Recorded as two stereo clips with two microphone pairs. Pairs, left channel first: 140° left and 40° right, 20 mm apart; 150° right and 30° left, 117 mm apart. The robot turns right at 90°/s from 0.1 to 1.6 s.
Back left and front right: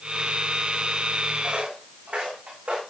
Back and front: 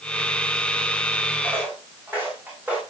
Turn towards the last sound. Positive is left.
turn(degrees=-50)